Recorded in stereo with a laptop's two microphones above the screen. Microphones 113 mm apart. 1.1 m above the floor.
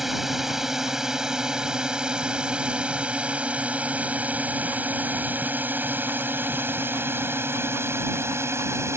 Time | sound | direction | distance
0.0 | a drone | 5° right (ahead or behind) | ?